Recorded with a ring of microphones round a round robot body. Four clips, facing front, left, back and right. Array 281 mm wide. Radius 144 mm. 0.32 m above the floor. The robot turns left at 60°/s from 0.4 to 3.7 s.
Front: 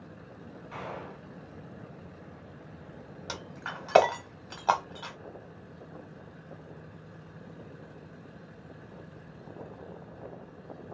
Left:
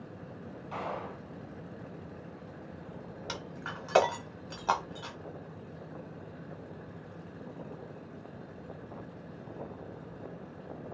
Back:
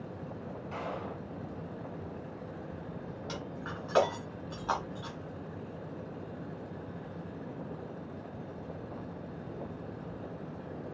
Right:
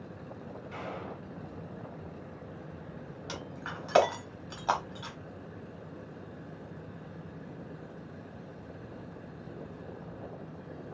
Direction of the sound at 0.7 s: 125° left.